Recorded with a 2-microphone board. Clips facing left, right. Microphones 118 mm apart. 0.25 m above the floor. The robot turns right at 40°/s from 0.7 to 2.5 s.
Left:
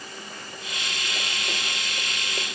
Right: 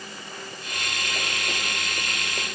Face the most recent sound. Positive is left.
No sound to turn to.